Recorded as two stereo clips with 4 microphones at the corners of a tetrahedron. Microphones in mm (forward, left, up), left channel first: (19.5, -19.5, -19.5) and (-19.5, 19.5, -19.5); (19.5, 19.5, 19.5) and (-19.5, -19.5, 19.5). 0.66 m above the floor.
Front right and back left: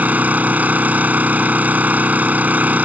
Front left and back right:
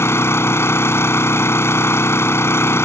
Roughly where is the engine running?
Left.